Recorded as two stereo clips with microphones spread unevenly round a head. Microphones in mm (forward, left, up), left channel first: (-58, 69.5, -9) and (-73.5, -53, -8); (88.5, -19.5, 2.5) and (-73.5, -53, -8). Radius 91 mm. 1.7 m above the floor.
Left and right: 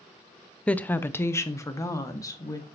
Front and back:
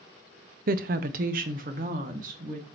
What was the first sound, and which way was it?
A woman speaking, 165° left.